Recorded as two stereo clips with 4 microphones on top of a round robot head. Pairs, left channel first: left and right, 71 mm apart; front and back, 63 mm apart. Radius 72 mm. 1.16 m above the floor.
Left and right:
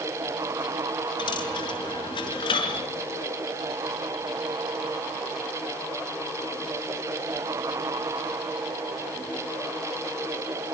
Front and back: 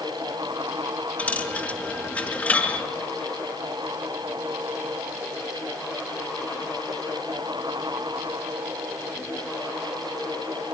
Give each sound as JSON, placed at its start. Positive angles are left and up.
{"t": 1.2, "sound": "a dropped coin", "azimuth_deg": 65, "distance_m": 4.5}